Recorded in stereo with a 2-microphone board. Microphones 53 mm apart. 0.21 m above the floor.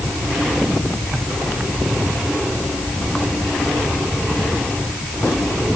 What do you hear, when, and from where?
Only background noise.